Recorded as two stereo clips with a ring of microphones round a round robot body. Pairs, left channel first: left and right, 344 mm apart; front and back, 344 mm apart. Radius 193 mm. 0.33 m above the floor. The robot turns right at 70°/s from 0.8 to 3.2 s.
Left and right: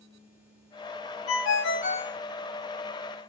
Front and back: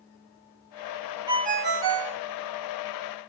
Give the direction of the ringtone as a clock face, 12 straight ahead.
8 o'clock.